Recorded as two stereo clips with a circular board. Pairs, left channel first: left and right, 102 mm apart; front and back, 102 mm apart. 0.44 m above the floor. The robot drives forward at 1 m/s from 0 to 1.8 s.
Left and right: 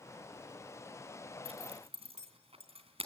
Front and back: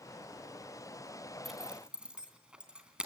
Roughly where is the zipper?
Right.